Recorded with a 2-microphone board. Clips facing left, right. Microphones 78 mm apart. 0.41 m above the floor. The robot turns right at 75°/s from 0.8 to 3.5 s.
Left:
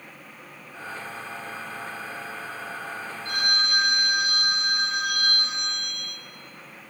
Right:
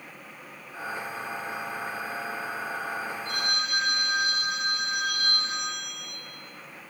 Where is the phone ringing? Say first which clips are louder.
Left 8 dB; 80° left, 3 m; by 6.2 s 70° left (ahead or behind), 3 m.